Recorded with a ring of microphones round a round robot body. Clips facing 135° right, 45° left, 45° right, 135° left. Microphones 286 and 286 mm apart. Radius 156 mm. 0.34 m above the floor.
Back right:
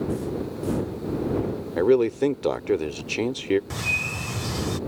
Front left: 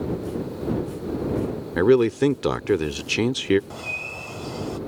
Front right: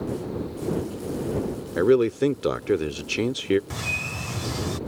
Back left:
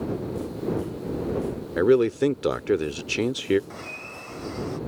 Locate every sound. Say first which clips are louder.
1.8 s a man speaking: front left 2 dB, even; 40° left
3.7 s a bird: back right 2 dB, front right 4 dB; 80° right